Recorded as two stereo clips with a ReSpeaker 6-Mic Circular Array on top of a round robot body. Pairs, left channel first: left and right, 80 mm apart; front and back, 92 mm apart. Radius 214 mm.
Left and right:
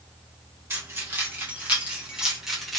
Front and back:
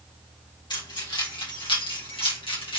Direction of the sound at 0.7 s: 35° right.